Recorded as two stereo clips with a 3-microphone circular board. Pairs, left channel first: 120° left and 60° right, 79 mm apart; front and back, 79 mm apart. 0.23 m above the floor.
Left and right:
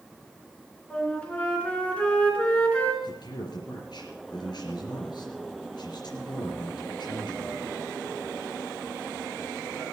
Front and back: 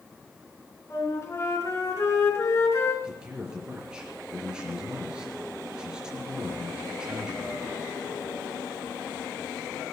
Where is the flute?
45° left, 3 m.